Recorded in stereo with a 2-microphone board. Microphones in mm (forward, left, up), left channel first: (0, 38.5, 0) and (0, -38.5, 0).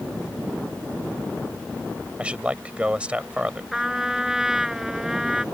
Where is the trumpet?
5° right (ahead or behind).